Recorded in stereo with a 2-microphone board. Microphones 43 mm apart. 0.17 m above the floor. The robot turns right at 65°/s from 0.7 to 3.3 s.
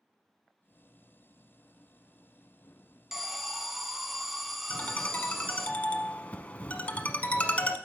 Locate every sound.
3.1 s an alarm: 10° right (ahead or behind), 0.8 m; by 5.7 s centre (ahead or behind), 0.8 m
4.7 s a ringtone: 30° left (ahead or behind), 1.0 m